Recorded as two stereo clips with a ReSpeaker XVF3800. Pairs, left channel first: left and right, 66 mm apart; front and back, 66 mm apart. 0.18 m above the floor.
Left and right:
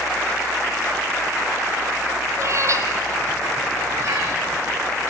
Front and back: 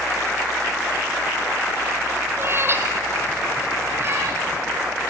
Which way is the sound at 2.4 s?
130° right.